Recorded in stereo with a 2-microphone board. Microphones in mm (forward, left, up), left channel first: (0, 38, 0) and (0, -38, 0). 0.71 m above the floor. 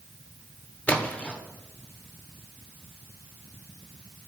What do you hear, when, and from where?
0.9 s a splash: 20° left (ahead or behind), 2.0 m